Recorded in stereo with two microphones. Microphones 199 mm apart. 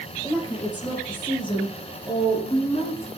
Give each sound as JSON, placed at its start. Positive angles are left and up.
{"t": 0.2, "sound": "a woman speaking", "side_deg": 20, "distance_m": 3.0}